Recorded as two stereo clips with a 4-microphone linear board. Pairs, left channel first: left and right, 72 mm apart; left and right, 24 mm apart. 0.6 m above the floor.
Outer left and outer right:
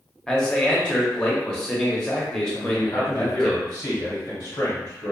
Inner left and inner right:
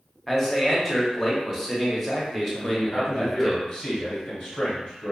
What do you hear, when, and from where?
0.3 s a man speaking: 10° left (ahead or behind), 0.7 m
2.5 s a man speaking: 55° left (ahead or behind), 1.6 m